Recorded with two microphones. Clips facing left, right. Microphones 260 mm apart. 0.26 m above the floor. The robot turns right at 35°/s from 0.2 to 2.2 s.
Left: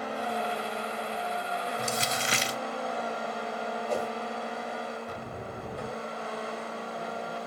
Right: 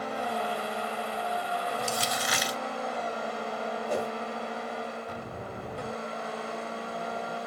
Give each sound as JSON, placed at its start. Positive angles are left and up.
{"t": 1.8, "sound": "crumpling", "side_deg": 20, "distance_m": 0.6}
{"t": 3.9, "sound": "a whoosh", "side_deg": -10, "distance_m": 1.9}